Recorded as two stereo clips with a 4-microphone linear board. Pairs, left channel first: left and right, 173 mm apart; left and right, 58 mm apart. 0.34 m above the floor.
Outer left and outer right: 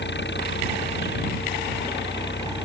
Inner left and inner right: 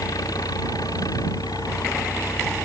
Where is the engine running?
85° left.